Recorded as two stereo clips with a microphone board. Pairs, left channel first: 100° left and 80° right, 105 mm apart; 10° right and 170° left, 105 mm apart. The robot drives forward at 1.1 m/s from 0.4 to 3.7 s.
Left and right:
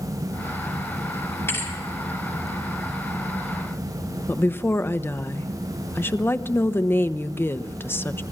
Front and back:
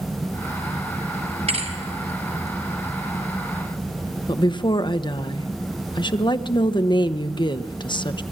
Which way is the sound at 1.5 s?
170° left.